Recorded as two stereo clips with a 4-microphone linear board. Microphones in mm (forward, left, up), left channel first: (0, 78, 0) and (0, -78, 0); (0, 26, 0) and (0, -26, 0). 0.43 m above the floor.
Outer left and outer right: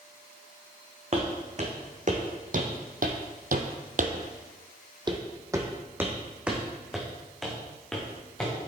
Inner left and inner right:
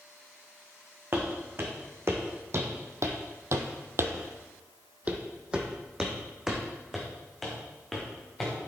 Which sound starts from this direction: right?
Footsteps, at 1.1 s.